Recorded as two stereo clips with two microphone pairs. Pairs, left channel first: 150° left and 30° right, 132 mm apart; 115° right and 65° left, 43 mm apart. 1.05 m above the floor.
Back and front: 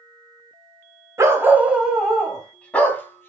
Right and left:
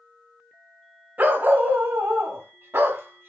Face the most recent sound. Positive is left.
turn(degrees=80)